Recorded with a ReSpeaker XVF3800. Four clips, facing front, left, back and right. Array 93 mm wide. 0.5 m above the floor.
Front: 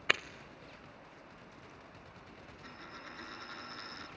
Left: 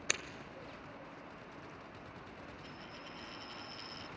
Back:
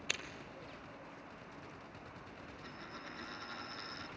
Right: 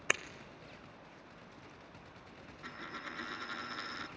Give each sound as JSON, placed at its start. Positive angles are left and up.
{"t": 0.1, "sound": "breaking glass", "azimuth_deg": -30, "distance_m": 1.0}
{"t": 2.6, "sound": "a dropped coin", "azimuth_deg": -90, "distance_m": 2.5}